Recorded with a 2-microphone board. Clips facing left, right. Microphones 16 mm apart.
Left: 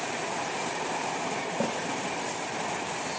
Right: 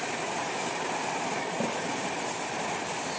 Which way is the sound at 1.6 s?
85° left.